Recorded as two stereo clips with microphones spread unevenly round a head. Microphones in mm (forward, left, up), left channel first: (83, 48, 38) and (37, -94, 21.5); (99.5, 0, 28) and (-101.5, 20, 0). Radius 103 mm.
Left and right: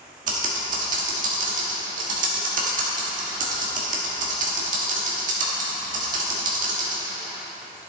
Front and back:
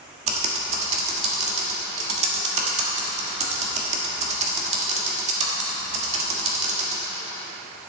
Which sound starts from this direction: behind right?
Typing on a keyboard, at 0.3 s.